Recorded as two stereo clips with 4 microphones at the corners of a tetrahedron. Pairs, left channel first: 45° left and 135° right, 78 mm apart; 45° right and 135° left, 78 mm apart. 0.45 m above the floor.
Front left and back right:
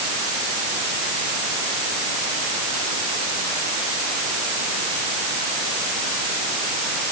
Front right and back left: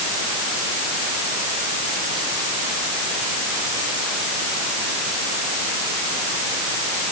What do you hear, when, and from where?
Only background noise.